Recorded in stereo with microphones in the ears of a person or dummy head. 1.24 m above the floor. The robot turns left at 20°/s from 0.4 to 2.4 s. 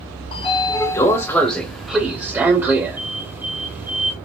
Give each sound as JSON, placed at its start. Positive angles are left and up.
{"t": 0.3, "sound": "a sliding door", "azimuth_deg": 25, "distance_m": 0.6}